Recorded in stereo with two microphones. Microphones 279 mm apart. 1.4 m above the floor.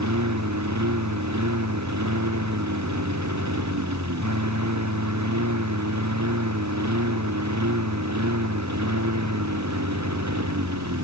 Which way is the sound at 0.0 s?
80° right.